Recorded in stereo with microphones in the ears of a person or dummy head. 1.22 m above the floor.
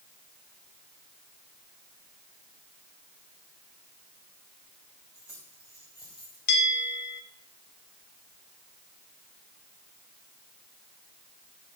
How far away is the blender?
No blender in this recording.